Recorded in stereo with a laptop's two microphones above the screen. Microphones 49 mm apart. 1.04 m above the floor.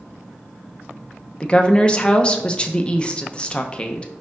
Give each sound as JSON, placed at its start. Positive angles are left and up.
{"t": 1.4, "sound": "a woman speaking", "side_deg": 20, "distance_m": 0.6}